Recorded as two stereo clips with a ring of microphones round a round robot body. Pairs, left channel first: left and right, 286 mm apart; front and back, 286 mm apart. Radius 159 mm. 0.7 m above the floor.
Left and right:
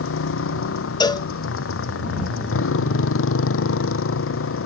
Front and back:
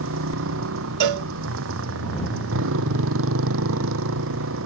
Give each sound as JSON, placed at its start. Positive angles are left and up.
{"t": 0.0, "sound": "a motorcycle", "azimuth_deg": 130}
{"t": 1.0, "sound": "a cowbell", "azimuth_deg": 165}